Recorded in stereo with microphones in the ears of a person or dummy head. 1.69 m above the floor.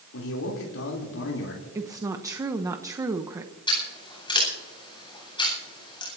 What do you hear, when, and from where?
0.1 s a man speaking: 70° left (ahead or behind), 3.5 m
1.8 s a woman speaking: 10° right (ahead or behind), 0.9 m
3.7 s scissors: 35° left (ahead or behind), 9.5 m